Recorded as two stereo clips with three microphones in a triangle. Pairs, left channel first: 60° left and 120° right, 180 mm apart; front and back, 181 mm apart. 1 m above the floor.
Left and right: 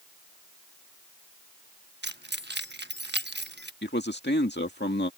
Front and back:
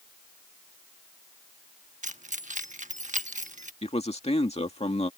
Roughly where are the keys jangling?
Behind right.